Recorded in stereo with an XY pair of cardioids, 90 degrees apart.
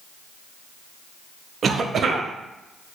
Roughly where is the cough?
Ahead right.